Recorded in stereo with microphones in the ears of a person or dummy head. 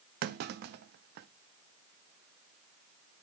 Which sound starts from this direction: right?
A clunk, at 0.2 s.